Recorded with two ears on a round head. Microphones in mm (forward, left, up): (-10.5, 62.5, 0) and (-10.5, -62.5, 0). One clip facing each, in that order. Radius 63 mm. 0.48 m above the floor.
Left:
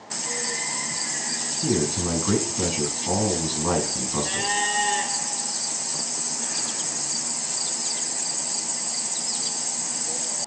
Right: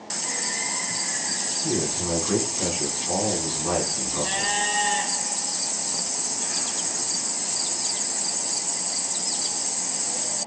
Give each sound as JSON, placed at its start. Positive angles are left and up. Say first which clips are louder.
{"t": 1.6, "sound": "a man speaking", "louder": "left 3 dB", "side_deg": 70, "distance_m": 6.0}